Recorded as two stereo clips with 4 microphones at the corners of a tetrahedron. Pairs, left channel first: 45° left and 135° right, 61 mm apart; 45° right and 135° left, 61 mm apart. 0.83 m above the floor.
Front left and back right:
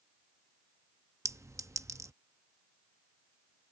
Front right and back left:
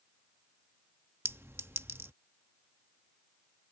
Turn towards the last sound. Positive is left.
turn(degrees=-175)